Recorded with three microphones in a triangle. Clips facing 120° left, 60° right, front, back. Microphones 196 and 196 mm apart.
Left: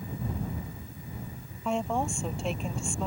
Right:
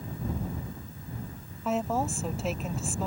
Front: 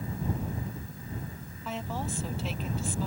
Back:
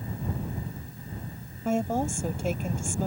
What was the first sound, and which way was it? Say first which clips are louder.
A woman speaking: right 1 dB, back 9 dB; 145° right.